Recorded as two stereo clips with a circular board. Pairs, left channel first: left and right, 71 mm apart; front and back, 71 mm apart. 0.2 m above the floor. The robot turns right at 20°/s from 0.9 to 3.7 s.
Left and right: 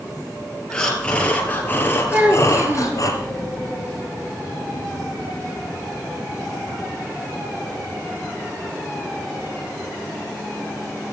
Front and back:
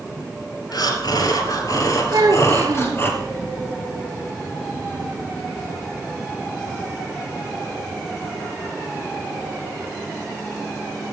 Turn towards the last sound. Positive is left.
turn(degrees=-130)